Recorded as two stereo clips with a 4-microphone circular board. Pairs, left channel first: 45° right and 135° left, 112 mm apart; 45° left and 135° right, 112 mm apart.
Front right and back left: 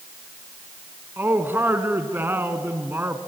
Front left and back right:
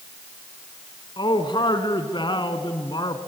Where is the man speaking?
70° left, 1.7 m.